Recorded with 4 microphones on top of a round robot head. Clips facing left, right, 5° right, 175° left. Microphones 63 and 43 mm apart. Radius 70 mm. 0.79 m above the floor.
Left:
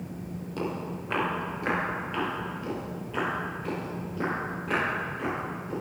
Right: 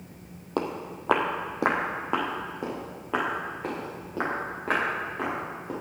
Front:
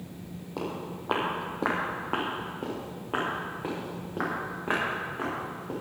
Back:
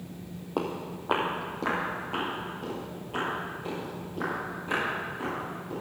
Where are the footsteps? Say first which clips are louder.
Right 3 dB, back 3 dB; 130° right, 1.6 m; by 5.7 s 40° right, 8 m.